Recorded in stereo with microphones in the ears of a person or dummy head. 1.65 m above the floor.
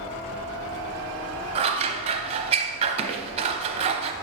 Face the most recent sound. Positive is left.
turn(degrees=-30)  # may be behind; listen again after turning